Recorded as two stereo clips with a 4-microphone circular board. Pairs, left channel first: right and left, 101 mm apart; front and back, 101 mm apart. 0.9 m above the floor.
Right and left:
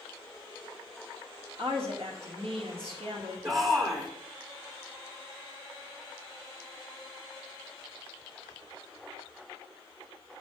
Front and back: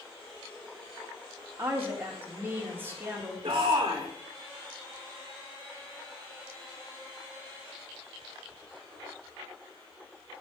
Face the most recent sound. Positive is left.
turn(degrees=140)